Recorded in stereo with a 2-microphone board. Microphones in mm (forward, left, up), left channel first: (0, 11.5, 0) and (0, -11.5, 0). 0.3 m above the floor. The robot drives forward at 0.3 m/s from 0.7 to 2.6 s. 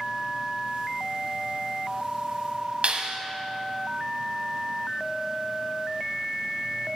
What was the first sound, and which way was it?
A clap, 55° right (ahead or behind).